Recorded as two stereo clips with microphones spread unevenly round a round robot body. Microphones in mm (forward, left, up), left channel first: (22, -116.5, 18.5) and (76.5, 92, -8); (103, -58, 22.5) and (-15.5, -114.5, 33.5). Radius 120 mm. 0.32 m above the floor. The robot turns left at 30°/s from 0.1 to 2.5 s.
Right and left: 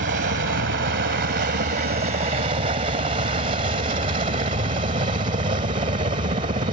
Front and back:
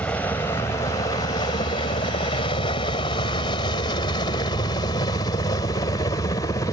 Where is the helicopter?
100° left; by 6.7 s 55° left.